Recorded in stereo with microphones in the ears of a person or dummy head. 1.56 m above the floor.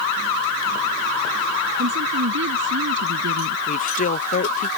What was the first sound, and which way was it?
A woman speaking, 60° right (ahead or behind).